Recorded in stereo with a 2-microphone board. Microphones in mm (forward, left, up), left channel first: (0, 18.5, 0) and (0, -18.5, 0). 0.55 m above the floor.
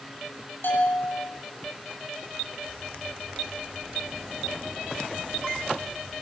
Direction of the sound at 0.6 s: 60° left (ahead or behind).